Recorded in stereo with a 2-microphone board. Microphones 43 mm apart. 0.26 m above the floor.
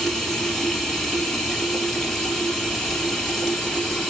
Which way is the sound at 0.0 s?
5° left (ahead or behind).